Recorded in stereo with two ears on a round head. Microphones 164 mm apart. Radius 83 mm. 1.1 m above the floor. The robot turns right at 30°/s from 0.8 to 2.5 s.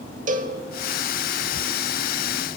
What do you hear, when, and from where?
0.3 s a cowbell: 45° right (ahead or behind), 1.0 m